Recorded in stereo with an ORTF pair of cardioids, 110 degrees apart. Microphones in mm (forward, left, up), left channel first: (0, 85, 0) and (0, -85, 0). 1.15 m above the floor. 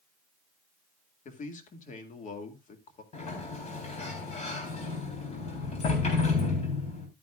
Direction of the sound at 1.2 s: 50° left.